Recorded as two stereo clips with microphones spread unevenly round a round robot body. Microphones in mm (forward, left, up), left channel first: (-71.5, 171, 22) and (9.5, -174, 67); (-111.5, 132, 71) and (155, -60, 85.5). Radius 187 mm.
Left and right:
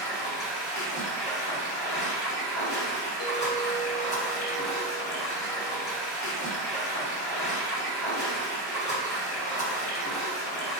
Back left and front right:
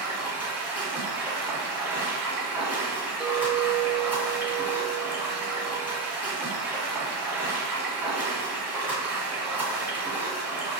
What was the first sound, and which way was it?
Running water, 50° left.